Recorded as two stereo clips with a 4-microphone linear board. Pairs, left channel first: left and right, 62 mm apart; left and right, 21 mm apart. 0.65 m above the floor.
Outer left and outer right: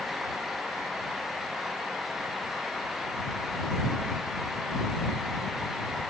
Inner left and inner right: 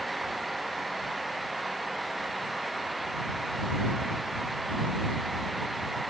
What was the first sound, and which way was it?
Only background noise.